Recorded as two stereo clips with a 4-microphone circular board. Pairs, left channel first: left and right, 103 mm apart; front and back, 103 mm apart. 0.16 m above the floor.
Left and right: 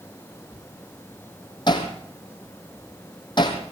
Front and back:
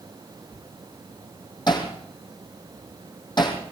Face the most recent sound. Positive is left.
turn(degrees=45)